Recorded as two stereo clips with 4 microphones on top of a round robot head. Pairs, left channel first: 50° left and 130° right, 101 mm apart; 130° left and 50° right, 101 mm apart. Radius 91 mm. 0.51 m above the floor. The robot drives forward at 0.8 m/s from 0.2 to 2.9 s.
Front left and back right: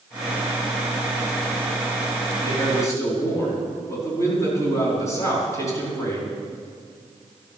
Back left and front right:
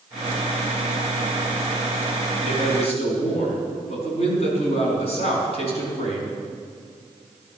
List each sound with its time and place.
2.4 s a man speaking: 105° left, 5 m; by 6.4 s 110° left, 5 m